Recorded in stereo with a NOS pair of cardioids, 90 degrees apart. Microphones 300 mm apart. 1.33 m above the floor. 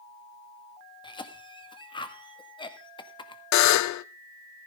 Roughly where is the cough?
Ahead.